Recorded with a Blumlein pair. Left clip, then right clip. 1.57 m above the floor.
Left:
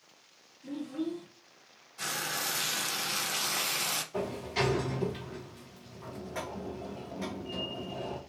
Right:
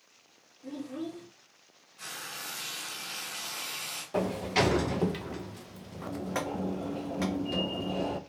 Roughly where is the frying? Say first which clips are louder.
Left 6 dB; ahead left.